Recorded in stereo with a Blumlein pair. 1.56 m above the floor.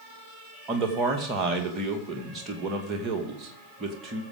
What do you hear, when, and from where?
0.7 s a man speaking: 25° right, 2.5 m